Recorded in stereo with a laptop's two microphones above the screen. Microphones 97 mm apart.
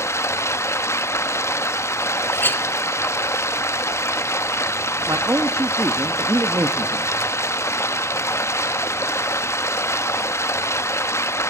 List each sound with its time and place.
0.0 s running water: 30° left (ahead or behind), 0.8 m
2.3 s a clink: 20° left (ahead or behind), 2 m
5.1 s a man speaking: 30° right (ahead or behind), 1.3 m